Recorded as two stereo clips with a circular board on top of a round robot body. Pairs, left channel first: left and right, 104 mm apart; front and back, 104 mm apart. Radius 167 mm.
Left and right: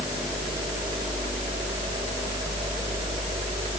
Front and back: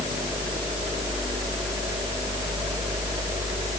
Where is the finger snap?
No finger snap in this recording.